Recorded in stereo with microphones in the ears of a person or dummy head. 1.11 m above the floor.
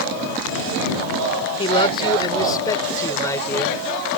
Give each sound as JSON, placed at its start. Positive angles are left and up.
{"t": 1.6, "sound": "a man speaking", "side_deg": 30}